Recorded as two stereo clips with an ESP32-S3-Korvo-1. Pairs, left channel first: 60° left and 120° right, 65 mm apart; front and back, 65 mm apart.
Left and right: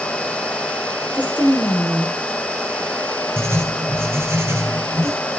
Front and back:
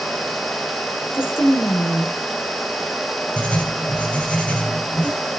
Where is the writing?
70° right, 2 m.